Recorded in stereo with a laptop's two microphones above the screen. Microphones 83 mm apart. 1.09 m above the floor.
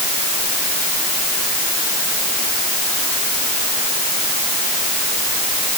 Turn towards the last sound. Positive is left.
No sound to turn to.